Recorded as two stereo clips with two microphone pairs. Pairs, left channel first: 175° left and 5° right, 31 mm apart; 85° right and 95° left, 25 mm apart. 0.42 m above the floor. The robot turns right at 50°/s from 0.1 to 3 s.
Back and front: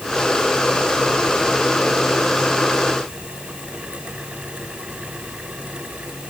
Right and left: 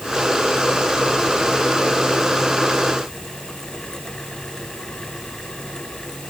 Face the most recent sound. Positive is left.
No sound to turn to.